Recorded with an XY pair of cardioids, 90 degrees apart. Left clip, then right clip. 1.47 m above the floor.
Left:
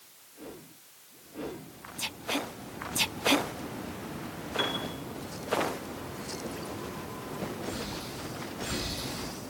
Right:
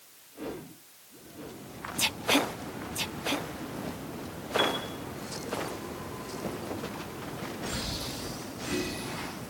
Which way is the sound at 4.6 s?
15° right.